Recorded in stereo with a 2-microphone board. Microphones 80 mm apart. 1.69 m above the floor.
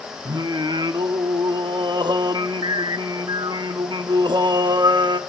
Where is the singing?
65° right (ahead or behind), 0.9 m.